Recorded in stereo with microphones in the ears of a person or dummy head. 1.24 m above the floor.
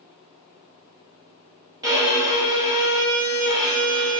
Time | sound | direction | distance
1.8 | a violin | 20° right (ahead or behind) | 1.4 m